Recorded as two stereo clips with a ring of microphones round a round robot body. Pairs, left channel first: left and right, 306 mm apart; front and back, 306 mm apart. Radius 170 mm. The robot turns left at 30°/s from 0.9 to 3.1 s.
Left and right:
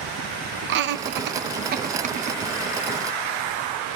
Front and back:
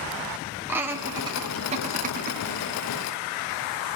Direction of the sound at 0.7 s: 100° right.